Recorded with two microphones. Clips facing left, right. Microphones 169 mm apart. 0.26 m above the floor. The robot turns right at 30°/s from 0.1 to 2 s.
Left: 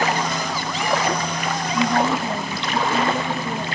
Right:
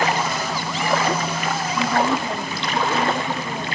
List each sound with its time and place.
1.7 s a woman speaking: 50° left (ahead or behind), 4 m; by 3.6 s 40° left (ahead or behind), 4 m